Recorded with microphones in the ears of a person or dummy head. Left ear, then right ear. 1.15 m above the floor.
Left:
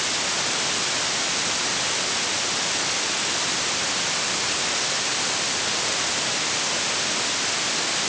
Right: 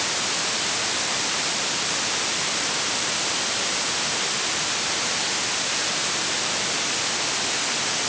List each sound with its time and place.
Only background noise.